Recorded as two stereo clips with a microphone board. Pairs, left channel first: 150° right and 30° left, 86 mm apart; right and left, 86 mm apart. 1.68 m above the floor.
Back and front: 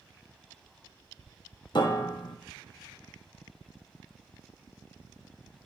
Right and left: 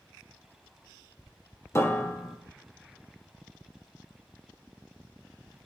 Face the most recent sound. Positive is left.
turn(degrees=-140)